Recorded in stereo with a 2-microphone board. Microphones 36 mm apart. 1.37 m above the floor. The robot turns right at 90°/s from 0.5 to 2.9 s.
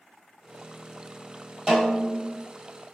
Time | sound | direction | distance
1.7 | a snare drum | 20° right (ahead or behind) | 1.2 m